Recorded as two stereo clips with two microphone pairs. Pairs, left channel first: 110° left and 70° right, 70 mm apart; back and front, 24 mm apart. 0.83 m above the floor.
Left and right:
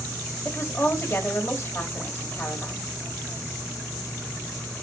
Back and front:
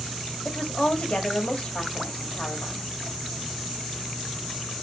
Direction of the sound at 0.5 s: 160° left.